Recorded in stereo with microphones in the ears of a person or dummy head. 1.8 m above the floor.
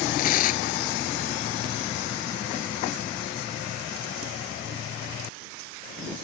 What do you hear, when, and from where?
0.2 s tearing paper: 50° left (ahead or behind)